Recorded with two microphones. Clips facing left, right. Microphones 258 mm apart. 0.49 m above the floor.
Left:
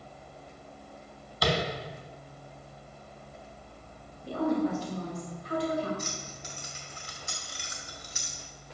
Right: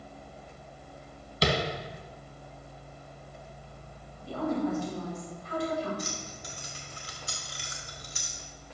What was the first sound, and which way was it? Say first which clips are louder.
Tapping: right 1 dB; 25° right (ahead or behind).